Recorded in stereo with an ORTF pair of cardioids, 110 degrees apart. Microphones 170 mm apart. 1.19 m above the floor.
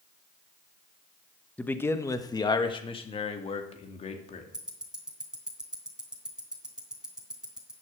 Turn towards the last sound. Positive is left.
turn(degrees=-5)